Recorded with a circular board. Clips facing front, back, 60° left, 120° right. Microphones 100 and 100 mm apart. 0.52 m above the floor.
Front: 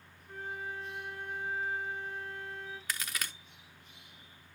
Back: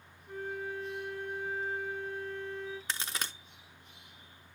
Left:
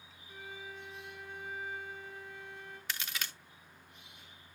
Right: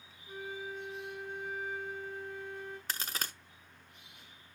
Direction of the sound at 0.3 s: 75° right.